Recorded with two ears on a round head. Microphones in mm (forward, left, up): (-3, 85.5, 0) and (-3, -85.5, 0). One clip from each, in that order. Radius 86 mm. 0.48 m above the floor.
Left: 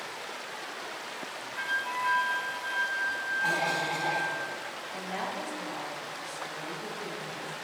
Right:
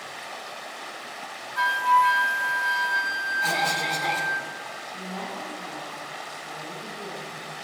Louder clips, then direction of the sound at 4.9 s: Left 2 dB; 60° left (ahead or behind).